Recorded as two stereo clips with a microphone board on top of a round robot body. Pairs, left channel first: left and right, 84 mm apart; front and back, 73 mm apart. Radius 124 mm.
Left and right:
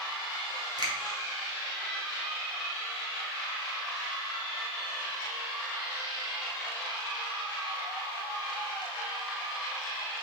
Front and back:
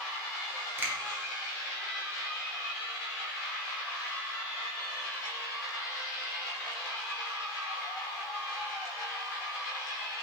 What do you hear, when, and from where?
0.8 s a finger snap: 120° right, 1.6 m